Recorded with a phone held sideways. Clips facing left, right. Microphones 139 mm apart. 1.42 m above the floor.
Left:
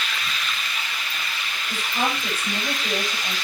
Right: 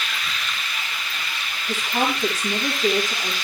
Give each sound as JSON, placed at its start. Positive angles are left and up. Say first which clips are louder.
{"t": 1.7, "sound": "a woman speaking", "louder": "right 3 dB", "side_deg": -85, "distance_m": 5.5}